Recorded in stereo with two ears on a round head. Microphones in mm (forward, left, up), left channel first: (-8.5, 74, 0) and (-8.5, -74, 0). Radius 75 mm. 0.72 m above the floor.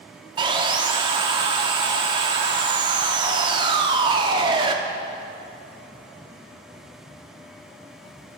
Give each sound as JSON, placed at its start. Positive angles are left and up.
{"t": 0.4, "sound": "sawing", "side_deg": -25, "distance_m": 0.6}